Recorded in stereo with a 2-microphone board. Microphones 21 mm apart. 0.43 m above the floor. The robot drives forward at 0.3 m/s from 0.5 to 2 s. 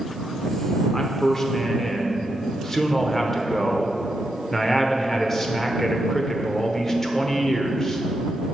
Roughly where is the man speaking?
Centre.